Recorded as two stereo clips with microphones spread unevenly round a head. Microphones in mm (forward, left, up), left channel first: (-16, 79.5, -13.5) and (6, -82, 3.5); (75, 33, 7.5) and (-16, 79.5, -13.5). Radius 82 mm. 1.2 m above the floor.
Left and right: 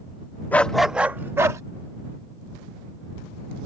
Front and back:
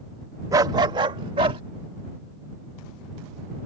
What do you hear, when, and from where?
0.5 s a dog barking: 175° left; by 1.6 s 150° right